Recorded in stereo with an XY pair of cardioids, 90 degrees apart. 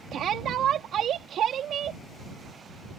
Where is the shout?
70° right.